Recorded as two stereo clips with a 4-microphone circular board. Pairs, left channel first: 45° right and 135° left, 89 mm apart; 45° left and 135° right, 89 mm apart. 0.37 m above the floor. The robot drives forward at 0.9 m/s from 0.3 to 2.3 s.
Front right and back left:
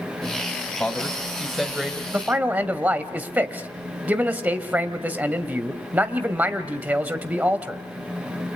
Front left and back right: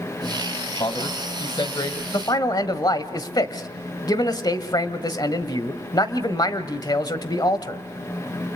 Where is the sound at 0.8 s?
35° left, 2.5 m; by 2.0 s 55° left, 1.9 m.